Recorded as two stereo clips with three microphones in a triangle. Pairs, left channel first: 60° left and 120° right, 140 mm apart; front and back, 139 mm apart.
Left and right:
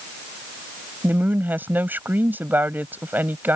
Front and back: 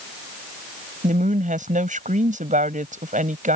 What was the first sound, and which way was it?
A woman speaking, 165° left.